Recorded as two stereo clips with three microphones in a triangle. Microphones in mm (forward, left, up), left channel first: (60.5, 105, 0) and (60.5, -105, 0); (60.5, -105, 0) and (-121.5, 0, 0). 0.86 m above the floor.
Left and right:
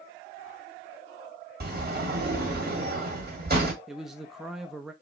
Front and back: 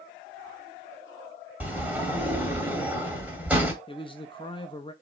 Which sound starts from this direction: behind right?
A sliding door, at 1.6 s.